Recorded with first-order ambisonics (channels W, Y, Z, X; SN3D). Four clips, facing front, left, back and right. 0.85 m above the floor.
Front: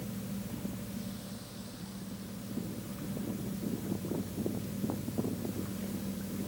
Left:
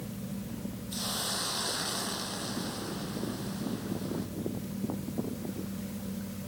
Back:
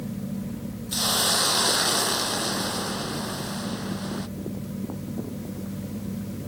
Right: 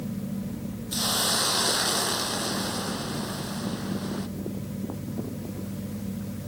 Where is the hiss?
155° right.